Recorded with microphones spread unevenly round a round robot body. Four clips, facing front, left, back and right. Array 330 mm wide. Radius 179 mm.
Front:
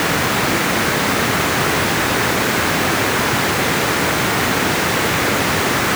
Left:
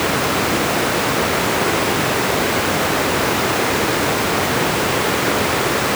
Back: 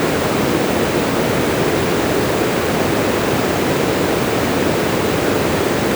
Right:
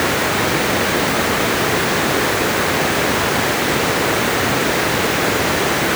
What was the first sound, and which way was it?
Only background noise.